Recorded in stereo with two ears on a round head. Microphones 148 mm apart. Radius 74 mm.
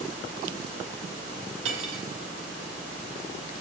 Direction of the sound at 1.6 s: 90° right.